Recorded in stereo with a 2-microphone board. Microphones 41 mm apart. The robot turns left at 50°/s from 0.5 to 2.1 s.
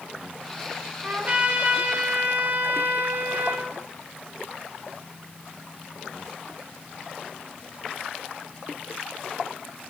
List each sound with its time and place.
1.0 s a trumpet: 45° right, 0.6 m; by 3.7 s 95° right, 0.6 m